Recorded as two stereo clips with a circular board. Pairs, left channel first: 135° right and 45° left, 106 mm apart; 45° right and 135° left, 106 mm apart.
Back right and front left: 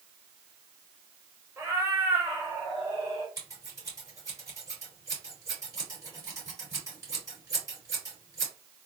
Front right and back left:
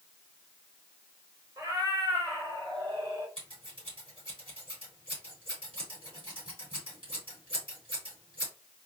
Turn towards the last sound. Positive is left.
turn(degrees=100)